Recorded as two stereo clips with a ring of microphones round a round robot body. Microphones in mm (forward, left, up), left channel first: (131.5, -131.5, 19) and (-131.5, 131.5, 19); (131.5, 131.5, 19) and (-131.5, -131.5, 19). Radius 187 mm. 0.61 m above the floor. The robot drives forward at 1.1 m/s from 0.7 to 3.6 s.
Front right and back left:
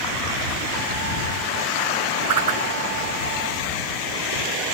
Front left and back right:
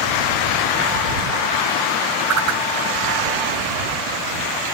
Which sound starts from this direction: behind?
A whoosh, at 2.3 s.